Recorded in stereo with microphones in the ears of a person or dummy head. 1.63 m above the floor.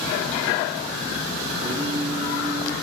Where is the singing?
30° right (ahead or behind), 3.5 m.